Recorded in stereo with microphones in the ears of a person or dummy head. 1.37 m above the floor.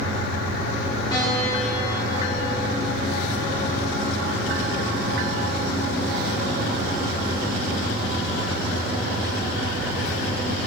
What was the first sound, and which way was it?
A piano, 25° left (ahead or behind).